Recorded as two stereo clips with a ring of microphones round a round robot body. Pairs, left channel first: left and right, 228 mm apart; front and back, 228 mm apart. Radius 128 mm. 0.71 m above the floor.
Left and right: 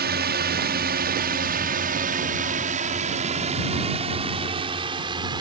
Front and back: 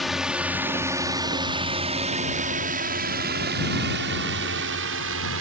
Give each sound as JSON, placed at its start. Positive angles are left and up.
{"t": 0.0, "sound": "a drone", "azimuth_deg": -90}